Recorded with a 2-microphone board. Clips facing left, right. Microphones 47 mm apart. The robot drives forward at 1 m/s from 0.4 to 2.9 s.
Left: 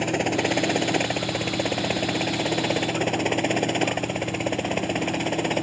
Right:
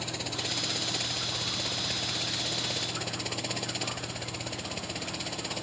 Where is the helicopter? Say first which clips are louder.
Left 13 dB; 50° left (ahead or behind); by 5.6 s 45° left (ahead or behind).